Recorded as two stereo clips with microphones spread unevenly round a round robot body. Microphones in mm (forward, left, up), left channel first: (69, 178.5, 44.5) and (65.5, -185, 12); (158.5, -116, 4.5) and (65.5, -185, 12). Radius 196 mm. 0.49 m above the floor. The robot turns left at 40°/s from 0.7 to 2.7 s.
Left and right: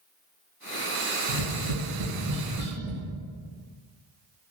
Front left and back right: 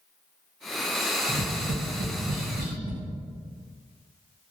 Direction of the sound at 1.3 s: 140° right.